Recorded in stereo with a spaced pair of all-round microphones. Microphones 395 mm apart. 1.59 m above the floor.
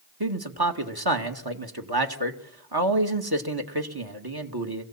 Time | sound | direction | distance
0.2 | a man speaking | 70° right (ahead or behind) | 2.5 m